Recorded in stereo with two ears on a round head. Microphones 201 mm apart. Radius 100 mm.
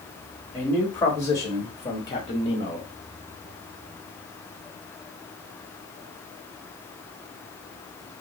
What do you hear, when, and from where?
0.5 s a man speaking: 10° left (ahead or behind), 2 m; by 2.9 s 30° left (ahead or behind), 1.2 m